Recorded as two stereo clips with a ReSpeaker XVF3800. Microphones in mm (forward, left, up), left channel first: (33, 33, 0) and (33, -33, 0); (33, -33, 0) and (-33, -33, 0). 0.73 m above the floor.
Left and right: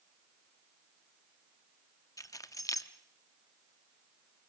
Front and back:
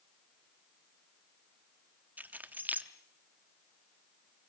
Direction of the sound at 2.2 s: 115° left.